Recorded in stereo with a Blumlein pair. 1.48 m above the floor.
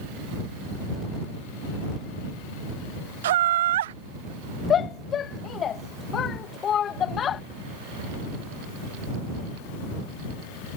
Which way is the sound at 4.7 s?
25° left.